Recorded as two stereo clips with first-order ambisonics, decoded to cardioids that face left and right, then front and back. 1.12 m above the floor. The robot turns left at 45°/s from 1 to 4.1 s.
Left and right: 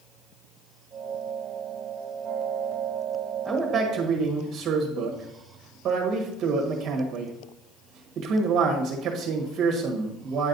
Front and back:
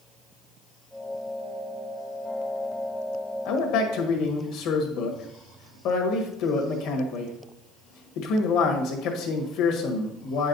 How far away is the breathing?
I don't hear breathing.